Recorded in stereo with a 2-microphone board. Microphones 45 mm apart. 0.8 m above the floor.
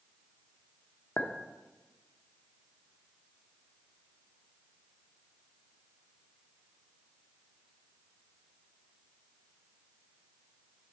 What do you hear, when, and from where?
1.2 s a clink: 65° left (ahead or behind), 0.7 m